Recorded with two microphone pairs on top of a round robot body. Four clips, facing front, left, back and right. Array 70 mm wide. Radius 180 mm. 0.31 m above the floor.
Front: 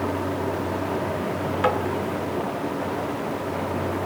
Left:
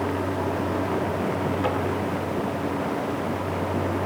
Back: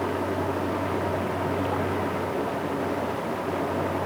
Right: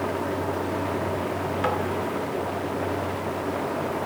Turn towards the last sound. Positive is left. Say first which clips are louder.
# right 2 dB, front 6 dB
turn(degrees=-10)